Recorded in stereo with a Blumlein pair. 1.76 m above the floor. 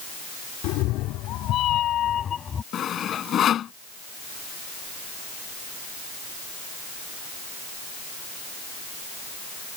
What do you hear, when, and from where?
0.6 s a cat meowing: 40° left; by 2.6 s 15° left
2.7 s sawing: 25° left